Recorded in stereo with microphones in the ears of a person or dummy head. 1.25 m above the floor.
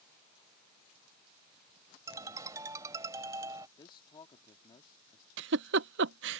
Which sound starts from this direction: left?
A man speaking, at 3.8 s.